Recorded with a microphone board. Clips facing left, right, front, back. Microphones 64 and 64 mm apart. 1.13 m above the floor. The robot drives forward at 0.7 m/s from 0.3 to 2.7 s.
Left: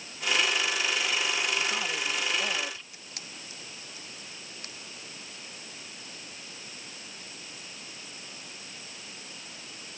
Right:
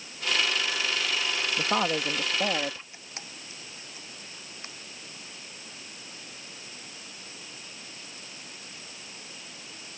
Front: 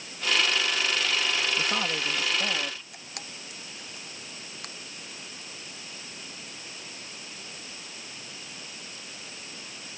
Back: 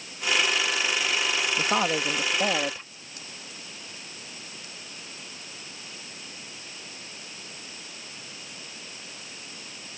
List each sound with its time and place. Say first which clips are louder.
1.6 s a woman speaking: right 4 dB, back 4 dB; 120° right; by 2.8 s 140° right
2.9 s a camera shutter: right 1 dB, front 2 dB; 25° right